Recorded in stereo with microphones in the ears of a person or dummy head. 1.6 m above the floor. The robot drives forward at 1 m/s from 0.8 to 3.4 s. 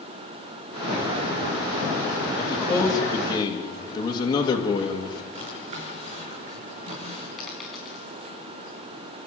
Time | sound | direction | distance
2.4 | a man speaking | 15° left (ahead or behind) | 3.5 m
5.3 | a drawer | 40° right (ahead or behind) | 5.5 m
7.4 | a dropped coin | centre (ahead or behind) | 4.5 m